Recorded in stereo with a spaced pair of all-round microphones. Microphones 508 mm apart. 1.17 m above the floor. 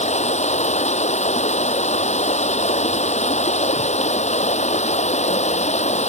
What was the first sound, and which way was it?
Running water, 15° left (ahead or behind).